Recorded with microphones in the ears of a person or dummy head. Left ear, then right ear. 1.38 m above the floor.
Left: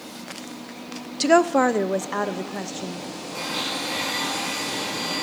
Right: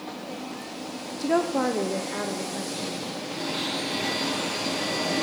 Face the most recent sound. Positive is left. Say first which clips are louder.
# left 3 dB
turn(degrees=40)  # may be behind; listen again after turning